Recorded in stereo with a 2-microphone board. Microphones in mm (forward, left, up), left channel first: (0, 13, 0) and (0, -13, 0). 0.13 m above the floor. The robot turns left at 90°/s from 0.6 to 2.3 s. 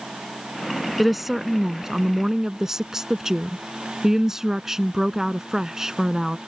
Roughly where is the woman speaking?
Centre.